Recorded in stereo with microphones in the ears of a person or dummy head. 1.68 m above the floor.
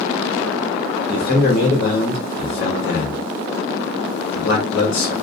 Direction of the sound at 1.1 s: 75° left (ahead or behind).